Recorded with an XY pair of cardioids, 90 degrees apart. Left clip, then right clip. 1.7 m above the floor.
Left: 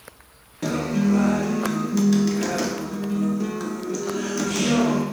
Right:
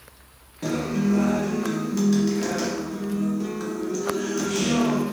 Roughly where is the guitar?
Ahead left.